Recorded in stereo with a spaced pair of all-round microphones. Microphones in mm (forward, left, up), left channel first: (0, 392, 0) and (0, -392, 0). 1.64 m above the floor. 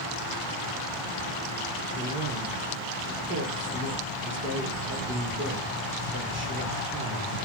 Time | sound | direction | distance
1.9 | a man speaking | 15° right (ahead or behind) | 1.3 m